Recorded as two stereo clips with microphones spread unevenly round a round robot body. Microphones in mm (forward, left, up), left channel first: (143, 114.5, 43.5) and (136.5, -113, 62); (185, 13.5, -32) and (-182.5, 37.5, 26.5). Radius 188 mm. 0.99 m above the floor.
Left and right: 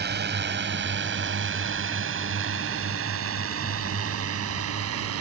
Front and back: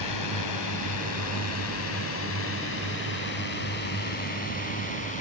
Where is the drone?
50° right; by 5.2 s 75° right.